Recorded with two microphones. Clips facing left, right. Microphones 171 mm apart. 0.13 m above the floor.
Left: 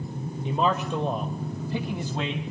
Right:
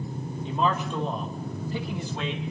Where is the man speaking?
20° left (ahead or behind), 2.5 m.